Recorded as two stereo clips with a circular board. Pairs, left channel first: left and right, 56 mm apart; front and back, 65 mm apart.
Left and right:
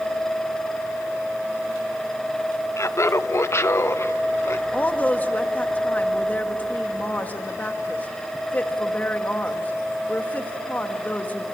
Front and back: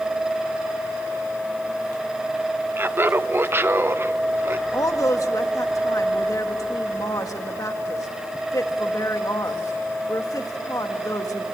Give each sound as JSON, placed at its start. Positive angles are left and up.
{"t": 2.8, "sound": "laughter", "azimuth_deg": 125, "distance_m": 0.8}
{"t": 4.7, "sound": "a woman speaking", "azimuth_deg": 30, "distance_m": 1.8}